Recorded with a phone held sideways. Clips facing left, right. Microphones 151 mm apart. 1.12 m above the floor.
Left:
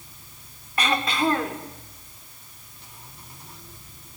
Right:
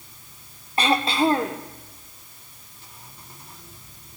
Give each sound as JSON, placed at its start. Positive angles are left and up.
{"t": 0.8, "sound": "throat clearing", "side_deg": -30, "distance_m": 0.8}